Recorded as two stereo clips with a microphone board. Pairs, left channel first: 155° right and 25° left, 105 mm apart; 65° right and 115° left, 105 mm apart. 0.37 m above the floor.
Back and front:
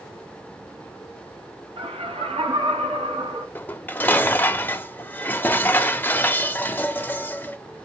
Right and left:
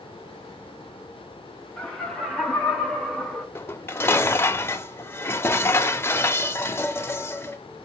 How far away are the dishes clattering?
About 0.6 m.